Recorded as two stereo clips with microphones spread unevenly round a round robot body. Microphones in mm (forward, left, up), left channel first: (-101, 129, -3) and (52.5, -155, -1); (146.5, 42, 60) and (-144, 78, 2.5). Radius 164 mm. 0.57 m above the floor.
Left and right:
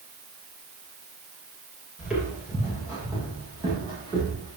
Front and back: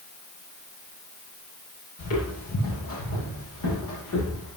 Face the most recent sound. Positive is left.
turn(degrees=15)